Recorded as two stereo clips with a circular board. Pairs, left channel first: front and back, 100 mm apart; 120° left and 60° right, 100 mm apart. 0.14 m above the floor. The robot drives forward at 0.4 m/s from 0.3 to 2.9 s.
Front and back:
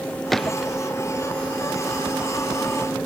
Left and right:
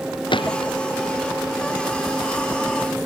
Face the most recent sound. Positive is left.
turn(degrees=90)